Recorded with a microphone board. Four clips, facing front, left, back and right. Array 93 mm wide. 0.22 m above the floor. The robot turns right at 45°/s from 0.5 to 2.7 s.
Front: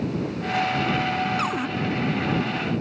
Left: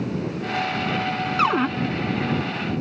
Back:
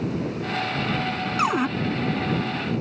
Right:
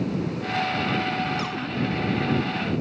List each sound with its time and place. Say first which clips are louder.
1.4 s a cupboard door: left 10 dB, back 4 dB; 110° left; by 1.7 s 120° left